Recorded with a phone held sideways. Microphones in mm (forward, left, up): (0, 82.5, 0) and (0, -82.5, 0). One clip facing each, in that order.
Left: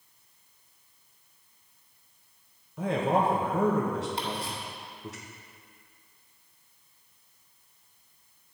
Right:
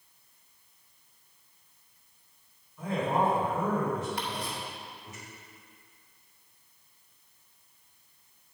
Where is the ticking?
25° left (ahead or behind), 1.8 m.